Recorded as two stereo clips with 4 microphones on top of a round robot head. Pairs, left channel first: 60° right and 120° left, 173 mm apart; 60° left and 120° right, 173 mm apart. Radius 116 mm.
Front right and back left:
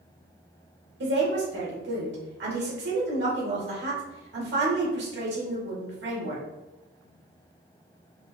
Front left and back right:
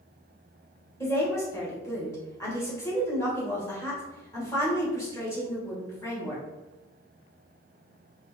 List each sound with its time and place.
1.0 s a woman speaking: 130° left, 2 m